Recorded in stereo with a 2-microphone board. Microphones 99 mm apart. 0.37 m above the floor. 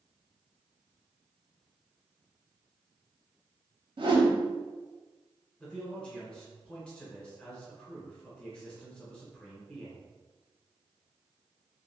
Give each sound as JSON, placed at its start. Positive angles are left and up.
{"t": 4.0, "sound": "a whoosh", "side_deg": -55, "distance_m": 0.5}
{"t": 5.6, "sound": "a man speaking", "side_deg": 10, "distance_m": 1.1}